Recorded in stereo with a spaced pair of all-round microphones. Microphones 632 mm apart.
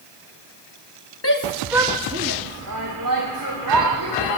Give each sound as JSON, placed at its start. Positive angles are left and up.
{"t": 1.2, "sound": "a shout", "side_deg": 25, "distance_m": 1.0}